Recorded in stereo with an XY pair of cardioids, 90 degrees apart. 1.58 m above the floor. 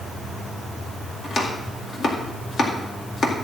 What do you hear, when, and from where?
1.2 s chopping: 65° left, 2 m